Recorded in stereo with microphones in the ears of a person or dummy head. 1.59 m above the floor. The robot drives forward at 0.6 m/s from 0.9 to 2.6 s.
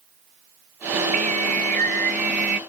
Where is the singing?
40° right (ahead or behind); by 2.6 s 50° right (ahead or behind).